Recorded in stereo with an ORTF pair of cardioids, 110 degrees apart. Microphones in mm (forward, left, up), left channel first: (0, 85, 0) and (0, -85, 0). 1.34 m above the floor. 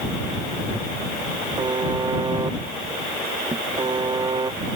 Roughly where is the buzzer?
Ahead right.